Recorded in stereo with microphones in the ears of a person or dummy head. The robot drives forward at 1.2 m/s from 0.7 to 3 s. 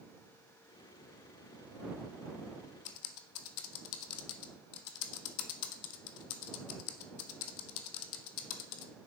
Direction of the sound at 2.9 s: 70° left (ahead or behind).